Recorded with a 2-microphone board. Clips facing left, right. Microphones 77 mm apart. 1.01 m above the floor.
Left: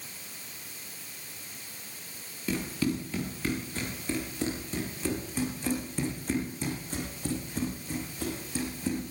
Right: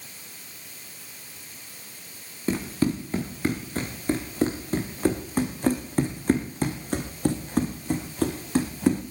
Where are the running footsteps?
35° right (ahead or behind), 4.5 m; by 9.0 s 75° right (ahead or behind), 3.5 m.